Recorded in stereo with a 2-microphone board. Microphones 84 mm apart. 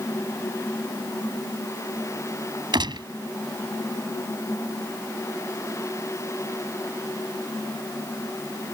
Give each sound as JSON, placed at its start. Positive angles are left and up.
{"t": 2.7, "sound": "a gunshot", "side_deg": -75}